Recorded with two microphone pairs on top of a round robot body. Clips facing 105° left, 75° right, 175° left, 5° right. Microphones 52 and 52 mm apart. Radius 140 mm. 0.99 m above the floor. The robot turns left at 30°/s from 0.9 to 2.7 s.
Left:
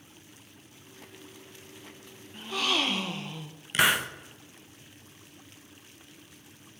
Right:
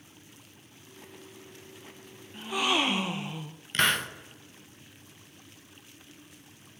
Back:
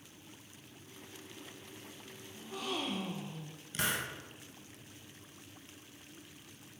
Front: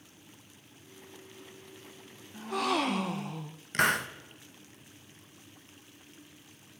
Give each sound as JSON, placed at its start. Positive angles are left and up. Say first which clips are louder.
{"t": 2.3, "sound": "a gasp", "louder": "right 2 dB, front 10 dB", "azimuth_deg": 5, "distance_m": 0.7}
{"t": 3.7, "sound": "a hiss", "louder": "left 2 dB, front 9 dB", "azimuth_deg": 25, "distance_m": 0.9}